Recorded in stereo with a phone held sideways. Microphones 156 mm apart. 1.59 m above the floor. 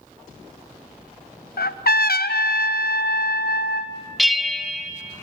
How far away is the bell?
About 0.9 m.